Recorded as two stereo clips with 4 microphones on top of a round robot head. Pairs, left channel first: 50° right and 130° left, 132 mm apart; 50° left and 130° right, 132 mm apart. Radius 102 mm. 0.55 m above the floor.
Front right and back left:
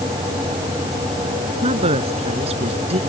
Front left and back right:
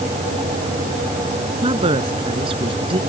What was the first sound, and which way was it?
A woman speaking, 175° left.